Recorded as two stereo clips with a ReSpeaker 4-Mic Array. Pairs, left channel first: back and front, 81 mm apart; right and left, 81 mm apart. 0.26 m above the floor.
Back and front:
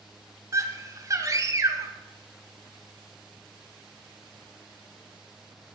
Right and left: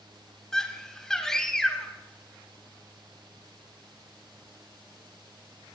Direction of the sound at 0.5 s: 10° right.